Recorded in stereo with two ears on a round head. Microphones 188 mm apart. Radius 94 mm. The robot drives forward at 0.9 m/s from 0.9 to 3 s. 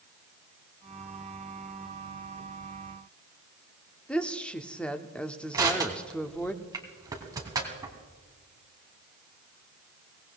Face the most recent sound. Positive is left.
turn(degrees=-15)  # may be behind; listen again after turning